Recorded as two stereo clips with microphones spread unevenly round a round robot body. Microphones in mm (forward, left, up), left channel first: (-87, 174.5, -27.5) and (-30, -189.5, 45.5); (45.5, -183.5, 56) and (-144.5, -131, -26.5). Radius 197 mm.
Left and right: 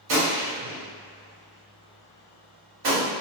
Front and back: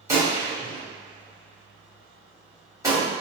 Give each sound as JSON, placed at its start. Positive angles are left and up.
{"t": 0.1, "sound": "a gunshot", "azimuth_deg": -115, "distance_m": 1.6}